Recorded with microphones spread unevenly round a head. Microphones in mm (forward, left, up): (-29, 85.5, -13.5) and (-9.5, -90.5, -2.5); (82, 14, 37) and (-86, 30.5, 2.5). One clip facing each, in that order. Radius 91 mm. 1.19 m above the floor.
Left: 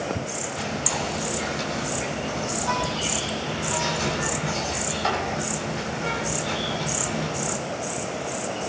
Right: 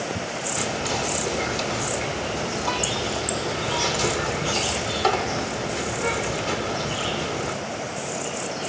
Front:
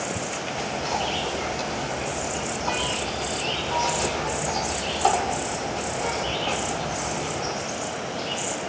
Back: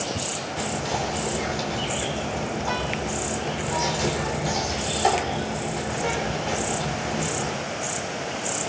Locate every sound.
0.6 s whispering: 105° right, 4 m